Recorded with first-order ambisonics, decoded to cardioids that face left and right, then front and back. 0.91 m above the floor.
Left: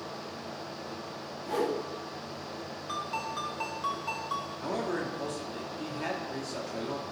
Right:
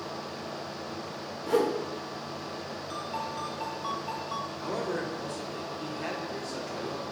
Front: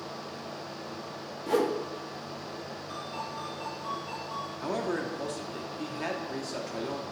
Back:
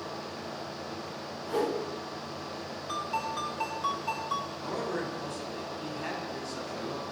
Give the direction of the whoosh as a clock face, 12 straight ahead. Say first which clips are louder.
Right 4 dB, front 3 dB; 1 o'clock.